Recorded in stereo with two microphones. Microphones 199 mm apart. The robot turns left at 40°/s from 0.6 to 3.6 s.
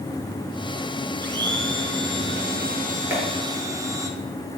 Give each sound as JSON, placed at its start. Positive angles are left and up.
{"t": 1.2, "sound": "a blender", "azimuth_deg": -65, "distance_m": 2.5}
{"t": 3.1, "sound": "a clap", "side_deg": -10, "distance_m": 5.5}